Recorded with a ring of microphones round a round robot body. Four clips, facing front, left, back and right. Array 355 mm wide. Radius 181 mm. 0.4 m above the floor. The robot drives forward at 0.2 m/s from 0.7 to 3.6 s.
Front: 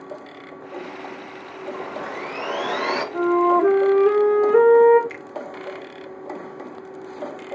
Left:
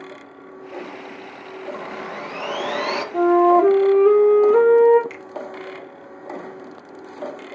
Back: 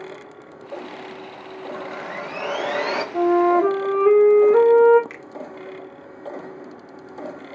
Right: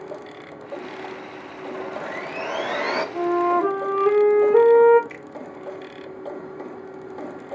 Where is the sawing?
110° left, 1.9 m; by 3.0 s 115° left, 1.9 m.